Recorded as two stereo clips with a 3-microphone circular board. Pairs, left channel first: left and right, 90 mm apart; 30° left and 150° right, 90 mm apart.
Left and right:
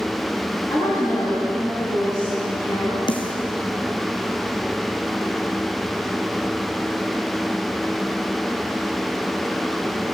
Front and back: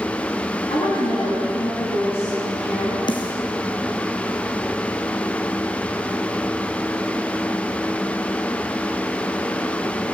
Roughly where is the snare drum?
Ahead left.